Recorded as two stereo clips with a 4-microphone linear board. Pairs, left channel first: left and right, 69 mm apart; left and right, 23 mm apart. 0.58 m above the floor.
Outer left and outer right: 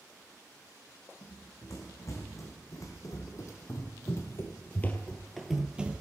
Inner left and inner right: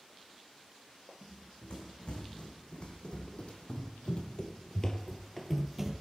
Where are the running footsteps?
50° left (ahead or behind), 2 m; by 6.0 s 20° right (ahead or behind), 0.7 m.